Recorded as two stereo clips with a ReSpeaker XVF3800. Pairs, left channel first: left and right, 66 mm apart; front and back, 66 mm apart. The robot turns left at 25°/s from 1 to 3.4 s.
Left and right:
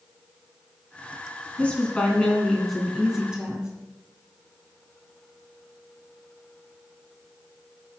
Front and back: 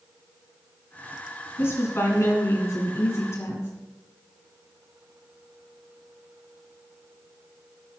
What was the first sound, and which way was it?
A woman speaking, 30° left.